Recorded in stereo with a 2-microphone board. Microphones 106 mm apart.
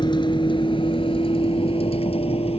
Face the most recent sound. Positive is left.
turn(degrees=65)  # may be behind; listen again after turning